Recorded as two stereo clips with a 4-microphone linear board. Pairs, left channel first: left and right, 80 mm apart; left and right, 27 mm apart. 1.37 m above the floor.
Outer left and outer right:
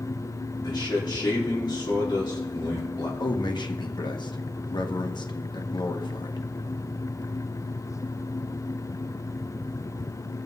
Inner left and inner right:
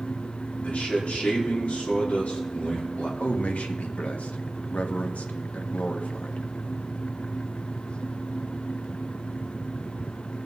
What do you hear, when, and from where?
0.6 s a man speaking: 65° left (ahead or behind), 3.5 m
3.2 s a man speaking: 70° left (ahead or behind), 1.3 m